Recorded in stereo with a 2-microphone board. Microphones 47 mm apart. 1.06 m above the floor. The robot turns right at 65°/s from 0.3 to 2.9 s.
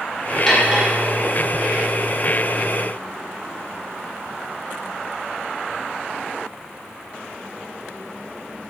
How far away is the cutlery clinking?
About 0.7 m.